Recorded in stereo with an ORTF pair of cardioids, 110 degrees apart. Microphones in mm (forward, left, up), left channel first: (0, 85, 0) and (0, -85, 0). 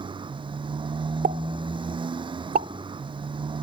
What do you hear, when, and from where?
0.0 s a motorcycle: 30° right
1.2 s a pop: 60° right